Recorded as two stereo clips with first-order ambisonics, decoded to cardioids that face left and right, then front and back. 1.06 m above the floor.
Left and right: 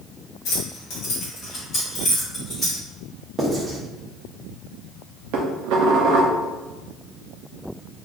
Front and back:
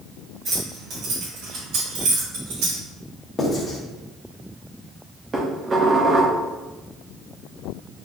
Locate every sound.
0.5 s keys jangling: 115° left, 1.3 m; by 2.8 s 170° left, 1.7 m
3.4 s writing: 45° right, 0.7 m
5.3 s dishes clattering: 110° right, 0.5 m